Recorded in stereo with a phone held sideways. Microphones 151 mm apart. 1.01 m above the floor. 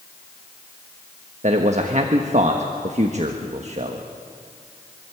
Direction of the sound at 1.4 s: 50° right (ahead or behind).